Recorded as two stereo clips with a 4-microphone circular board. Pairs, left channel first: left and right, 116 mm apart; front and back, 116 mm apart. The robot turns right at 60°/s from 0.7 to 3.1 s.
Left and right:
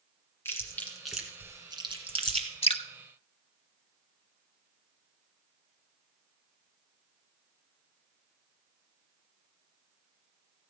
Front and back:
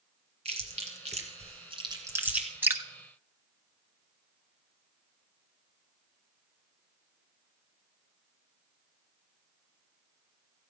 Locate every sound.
0.5 s chewing: 160° left, 1.9 m; by 2.5 s 95° right, 1.9 m
2.6 s dripping: 110° left, 0.8 m; by 2.8 s 120° left, 0.8 m